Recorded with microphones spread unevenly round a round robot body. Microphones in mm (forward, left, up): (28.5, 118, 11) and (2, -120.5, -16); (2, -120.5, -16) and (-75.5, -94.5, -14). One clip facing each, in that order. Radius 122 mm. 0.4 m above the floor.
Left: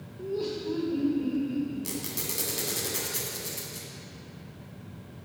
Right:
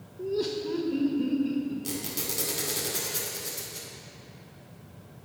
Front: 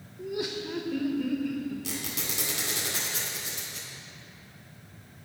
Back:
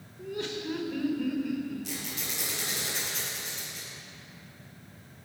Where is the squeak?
5° left, 1.8 m.